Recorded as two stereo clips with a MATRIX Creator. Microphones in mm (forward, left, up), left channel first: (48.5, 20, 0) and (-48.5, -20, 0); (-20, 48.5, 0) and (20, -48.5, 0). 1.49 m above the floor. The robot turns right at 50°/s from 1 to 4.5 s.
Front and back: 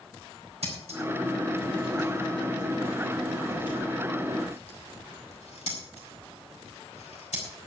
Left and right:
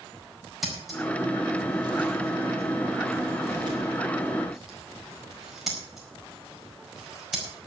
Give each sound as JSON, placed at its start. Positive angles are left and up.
{"t": 0.6, "sound": "scissors", "azimuth_deg": -155, "distance_m": 4.5}